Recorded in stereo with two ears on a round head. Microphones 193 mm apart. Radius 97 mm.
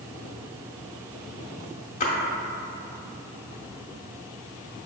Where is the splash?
40° left (ahead or behind), 0.8 m.